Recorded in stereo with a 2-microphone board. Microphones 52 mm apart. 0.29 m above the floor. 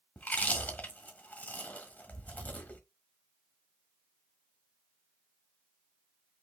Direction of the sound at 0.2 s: 35° left (ahead or behind).